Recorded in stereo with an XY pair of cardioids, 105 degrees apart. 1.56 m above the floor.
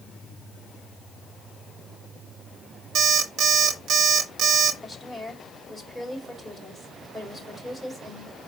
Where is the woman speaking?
Straight ahead, 5.5 m.